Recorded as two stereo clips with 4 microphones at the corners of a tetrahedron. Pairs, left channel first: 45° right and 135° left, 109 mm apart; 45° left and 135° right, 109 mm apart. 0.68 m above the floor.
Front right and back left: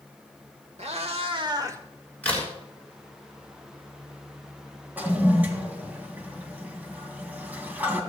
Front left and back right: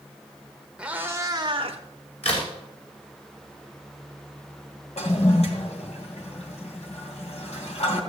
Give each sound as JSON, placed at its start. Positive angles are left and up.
{"t": 0.8, "sound": "a cat meowing", "azimuth_deg": 145, "distance_m": 1.4}
{"t": 2.2, "sound": "a crack", "azimuth_deg": 30, "distance_m": 5.5}
{"t": 5.0, "sound": "a toilet flushing", "azimuth_deg": 60, "distance_m": 2.0}